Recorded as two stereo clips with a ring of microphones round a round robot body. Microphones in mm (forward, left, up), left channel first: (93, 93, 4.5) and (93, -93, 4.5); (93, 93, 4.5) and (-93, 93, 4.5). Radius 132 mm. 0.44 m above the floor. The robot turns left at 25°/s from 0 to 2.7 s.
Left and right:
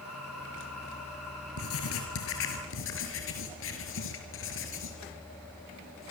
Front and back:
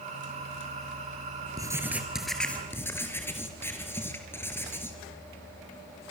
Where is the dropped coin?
No dropped coin in this recording.